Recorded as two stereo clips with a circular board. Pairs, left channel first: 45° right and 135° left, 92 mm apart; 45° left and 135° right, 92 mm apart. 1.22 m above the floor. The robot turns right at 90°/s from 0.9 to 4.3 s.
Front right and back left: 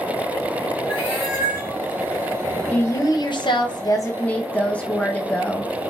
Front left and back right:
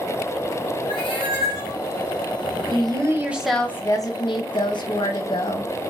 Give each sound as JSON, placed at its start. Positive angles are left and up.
{"t": 0.9, "sound": "a cat meowing", "azimuth_deg": 15, "distance_m": 1.9}
{"t": 2.7, "sound": "a woman speaking", "azimuth_deg": -115, "distance_m": 0.7}